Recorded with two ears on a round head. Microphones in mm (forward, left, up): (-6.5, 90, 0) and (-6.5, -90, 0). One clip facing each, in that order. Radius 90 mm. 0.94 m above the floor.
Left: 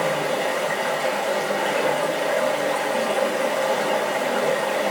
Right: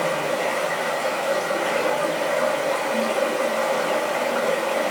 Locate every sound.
0.0 s running water: 10° left (ahead or behind), 1.3 m